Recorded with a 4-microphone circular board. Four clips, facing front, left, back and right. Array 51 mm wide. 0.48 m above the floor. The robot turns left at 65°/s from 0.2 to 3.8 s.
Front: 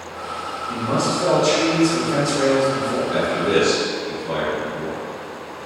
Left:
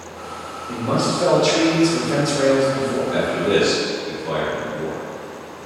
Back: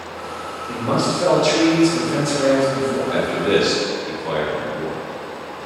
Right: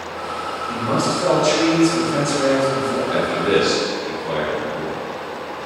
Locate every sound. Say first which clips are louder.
0.7 s a man speaking: even, back 1 dB; 175° left, 1.1 m; by 3.0 s 25° left, 1.1 m
3.1 s a man speaking: right 1 dB, even; 125° right, 1.2 m; by 5.0 s 170° right, 1.2 m